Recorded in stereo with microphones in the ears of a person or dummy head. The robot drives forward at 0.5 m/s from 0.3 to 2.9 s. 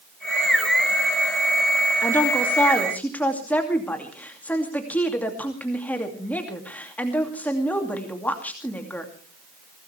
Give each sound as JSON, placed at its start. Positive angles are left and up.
{"t": 2.0, "sound": "a woman speaking", "side_deg": 20, "distance_m": 2.0}